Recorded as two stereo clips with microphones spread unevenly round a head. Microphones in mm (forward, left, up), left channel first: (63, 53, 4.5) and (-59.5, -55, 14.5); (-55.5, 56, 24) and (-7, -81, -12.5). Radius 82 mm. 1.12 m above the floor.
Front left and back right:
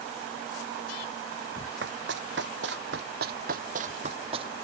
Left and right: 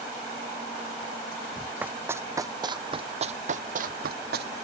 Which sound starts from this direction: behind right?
Running footsteps, at 1.8 s.